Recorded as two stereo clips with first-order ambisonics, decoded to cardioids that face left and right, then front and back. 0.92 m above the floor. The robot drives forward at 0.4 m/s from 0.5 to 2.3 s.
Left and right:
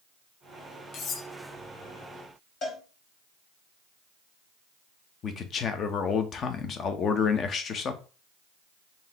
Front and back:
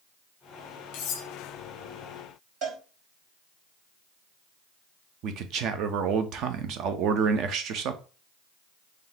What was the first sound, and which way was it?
Cutlery clinking, 30° left.